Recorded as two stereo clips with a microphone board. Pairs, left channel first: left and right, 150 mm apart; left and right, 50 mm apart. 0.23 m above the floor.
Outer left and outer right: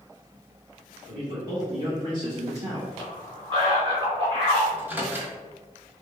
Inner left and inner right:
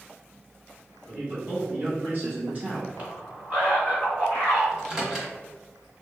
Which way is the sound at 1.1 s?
25° right (ahead or behind).